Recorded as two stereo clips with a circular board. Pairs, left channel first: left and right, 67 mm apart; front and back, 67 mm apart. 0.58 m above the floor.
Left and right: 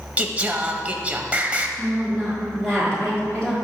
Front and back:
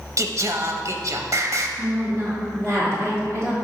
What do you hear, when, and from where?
0.2 s singing: 155° right, 0.5 m
1.8 s a woman speaking: 160° left, 1.4 m